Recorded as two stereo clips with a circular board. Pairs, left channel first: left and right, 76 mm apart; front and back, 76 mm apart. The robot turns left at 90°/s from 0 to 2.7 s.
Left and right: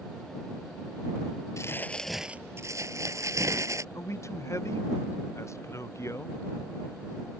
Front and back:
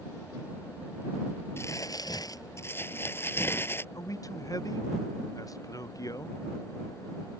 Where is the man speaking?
40° left.